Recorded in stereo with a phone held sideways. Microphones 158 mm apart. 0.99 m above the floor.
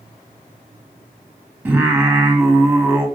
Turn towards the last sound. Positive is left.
turn(degrees=-15)  # may be behind; listen again after turning